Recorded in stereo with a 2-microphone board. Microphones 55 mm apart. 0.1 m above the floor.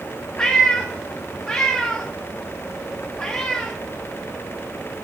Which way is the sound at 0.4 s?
15° left (ahead or behind).